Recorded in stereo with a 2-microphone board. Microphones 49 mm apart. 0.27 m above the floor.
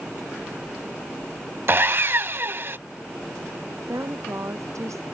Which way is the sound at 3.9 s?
80° right.